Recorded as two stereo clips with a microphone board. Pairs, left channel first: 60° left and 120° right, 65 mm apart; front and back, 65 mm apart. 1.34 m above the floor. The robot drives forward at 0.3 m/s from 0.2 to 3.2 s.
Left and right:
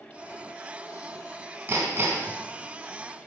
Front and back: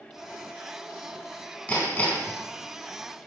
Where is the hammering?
70° right, 4 m; by 2.4 s 75° right, 4 m.